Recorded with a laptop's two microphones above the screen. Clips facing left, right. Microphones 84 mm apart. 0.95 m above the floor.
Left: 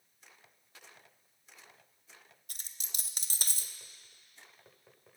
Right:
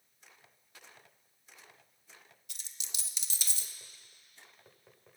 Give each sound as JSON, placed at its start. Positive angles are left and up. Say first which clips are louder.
{"t": 2.5, "sound": "a dropped coin", "louder": "even", "side_deg": 45, "distance_m": 0.8}